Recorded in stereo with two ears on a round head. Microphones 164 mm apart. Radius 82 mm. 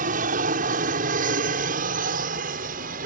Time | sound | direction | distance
0.0 | an aircraft | 45° right (ahead or behind) | ?